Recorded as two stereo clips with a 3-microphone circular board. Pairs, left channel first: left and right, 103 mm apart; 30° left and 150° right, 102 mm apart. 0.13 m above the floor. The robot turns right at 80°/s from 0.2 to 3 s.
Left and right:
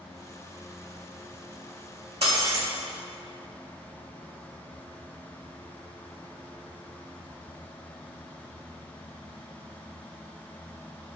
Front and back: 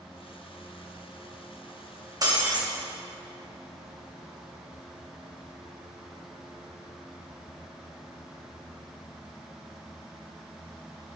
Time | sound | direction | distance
2.2 | breaking glass | 100° right | 5 m